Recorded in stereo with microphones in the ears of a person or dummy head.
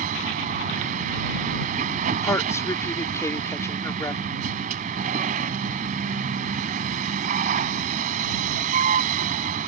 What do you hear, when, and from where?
0.0 s a vehicle: 40° right (ahead or behind)
2.2 s a woman speaking: 10° left (ahead or behind)